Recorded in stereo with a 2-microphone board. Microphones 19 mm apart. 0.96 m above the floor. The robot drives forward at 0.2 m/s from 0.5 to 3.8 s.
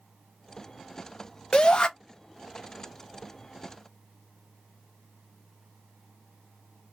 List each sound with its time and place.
1.5 s a shout: 40° left (ahead or behind), 0.6 m; by 1.9 s 45° left (ahead or behind), 0.5 m